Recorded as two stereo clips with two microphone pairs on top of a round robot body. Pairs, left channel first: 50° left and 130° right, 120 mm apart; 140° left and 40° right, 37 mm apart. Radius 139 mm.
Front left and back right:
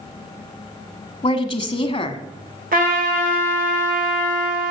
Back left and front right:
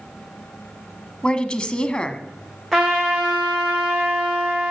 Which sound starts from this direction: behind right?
A trumpet, at 2.7 s.